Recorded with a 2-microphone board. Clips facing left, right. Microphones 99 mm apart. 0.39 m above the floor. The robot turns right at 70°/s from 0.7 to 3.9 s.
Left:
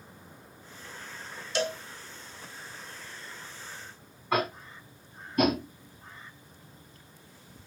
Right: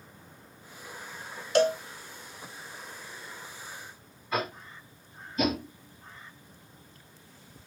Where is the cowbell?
55° right (ahead or behind), 0.5 m; by 1.8 s 40° right (ahead or behind), 0.5 m.